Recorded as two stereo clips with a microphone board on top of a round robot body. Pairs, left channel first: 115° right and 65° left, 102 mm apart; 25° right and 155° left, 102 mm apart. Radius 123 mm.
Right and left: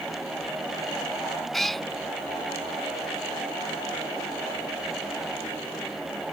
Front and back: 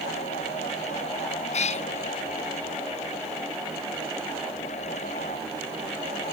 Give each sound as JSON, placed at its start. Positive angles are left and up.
{"t": 1.5, "sound": "a cat meowing", "azimuth_deg": -25}